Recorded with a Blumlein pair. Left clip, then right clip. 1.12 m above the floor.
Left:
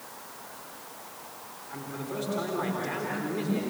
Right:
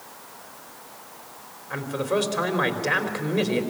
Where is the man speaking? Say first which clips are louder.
Right 12 dB; 60° right, 4 m.